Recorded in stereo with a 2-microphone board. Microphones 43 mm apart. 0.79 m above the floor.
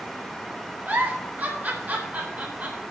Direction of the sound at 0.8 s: 40° right (ahead or behind).